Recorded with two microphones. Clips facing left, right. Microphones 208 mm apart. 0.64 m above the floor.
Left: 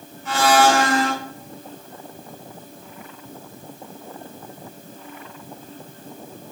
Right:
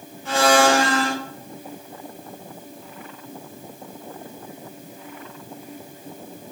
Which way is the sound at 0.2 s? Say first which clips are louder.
Even; 30° right (ahead or behind).